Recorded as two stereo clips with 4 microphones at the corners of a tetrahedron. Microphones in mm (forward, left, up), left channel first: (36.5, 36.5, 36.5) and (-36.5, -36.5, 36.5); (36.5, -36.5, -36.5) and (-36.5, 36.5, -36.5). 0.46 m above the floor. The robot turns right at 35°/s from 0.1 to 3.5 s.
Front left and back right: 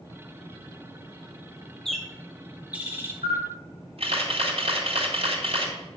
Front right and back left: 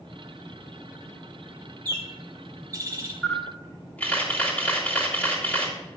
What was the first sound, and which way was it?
A bird, 130° left.